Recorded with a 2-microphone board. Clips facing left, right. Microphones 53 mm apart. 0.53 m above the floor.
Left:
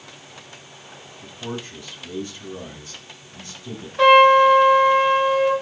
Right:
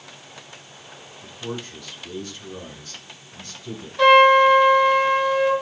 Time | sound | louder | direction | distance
1.2 | a man speaking | even | 25° left (ahead or behind) | 5 m
4.0 | a trumpet | left 1 dB | 25° left (ahead or behind) | 3.5 m